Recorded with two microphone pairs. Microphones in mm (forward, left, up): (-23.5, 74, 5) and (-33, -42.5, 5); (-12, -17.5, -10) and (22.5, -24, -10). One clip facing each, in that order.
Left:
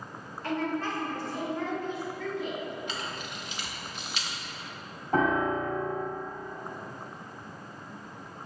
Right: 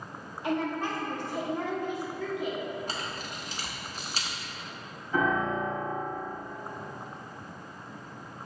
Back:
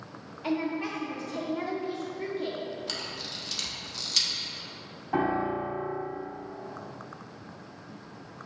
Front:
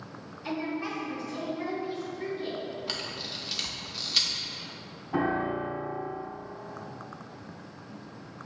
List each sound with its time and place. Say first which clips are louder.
0.4 s a woman speaking: right 1 dB, back 3 dB; 170° right, 1.8 m
2.9 s a camera shutter: even, front 1 dB; 75° right, 0.8 m
5.1 s a piano: left 2 dB, back 1 dB; 115° left, 2 m